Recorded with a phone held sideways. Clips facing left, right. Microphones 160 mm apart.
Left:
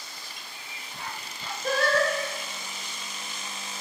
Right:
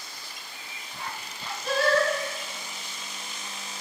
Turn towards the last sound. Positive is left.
turn(degrees=45)  # may be behind; listen again after turning